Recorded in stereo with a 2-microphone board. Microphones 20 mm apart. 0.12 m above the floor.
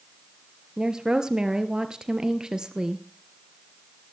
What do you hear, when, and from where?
0.8 s a woman speaking: 35° right (ahead or behind), 1.9 m